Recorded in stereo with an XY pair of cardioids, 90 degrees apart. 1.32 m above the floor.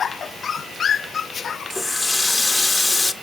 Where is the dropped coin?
No dropped coin in this recording.